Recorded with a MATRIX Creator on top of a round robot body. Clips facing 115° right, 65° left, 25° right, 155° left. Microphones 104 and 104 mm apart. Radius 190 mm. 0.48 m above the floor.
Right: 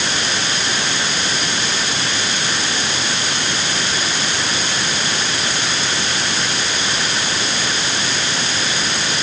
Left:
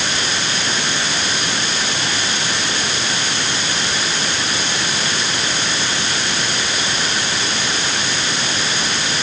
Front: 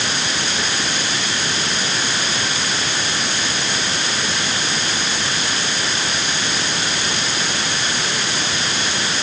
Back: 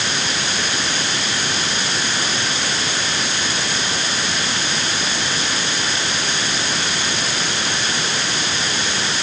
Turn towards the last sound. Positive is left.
No sound to turn to.